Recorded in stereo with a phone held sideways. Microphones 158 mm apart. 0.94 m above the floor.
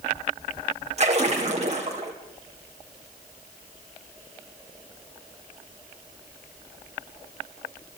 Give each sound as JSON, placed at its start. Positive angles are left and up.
{"t": 1.0, "sound": "a splash", "side_deg": -45, "distance_m": 3.5}